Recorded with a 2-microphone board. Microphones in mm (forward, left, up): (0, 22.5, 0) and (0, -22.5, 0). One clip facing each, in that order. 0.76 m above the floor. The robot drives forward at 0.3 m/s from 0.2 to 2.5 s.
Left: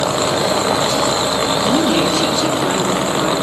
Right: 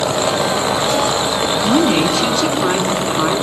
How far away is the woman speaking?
About 6 m.